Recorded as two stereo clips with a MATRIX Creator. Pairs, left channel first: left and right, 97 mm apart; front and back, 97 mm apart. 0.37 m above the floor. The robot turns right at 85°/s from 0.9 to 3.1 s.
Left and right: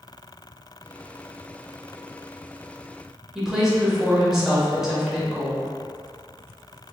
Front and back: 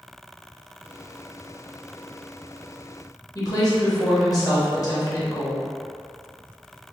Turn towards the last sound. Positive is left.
turn(degrees=-10)